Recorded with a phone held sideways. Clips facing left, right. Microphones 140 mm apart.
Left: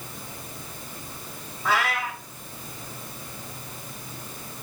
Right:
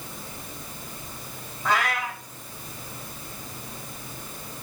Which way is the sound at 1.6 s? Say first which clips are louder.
Even; 5° left (ahead or behind).